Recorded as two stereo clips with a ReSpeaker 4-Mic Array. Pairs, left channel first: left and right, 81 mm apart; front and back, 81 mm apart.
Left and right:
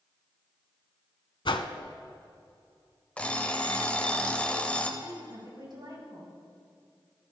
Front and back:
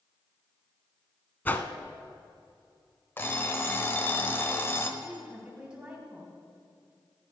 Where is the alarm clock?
30° left, 0.7 m.